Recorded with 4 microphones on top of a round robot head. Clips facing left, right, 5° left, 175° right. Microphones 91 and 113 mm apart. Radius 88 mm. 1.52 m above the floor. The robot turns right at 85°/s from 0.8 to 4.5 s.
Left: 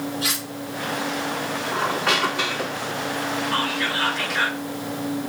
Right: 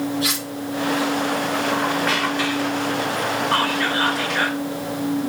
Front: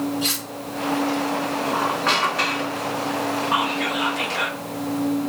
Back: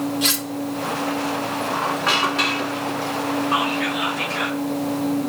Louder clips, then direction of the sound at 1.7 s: Right 2 dB, even; 70° left.